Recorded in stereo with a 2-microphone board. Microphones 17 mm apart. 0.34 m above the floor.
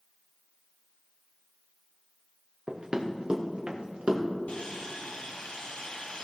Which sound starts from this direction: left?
Sawing, at 4.5 s.